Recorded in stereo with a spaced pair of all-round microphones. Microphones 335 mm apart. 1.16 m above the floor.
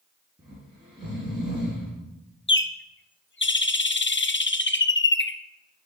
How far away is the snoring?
About 5.5 m.